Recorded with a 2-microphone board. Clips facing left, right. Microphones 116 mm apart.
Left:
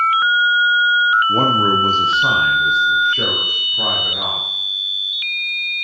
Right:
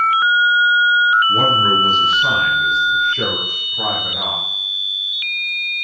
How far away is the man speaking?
About 1.5 m.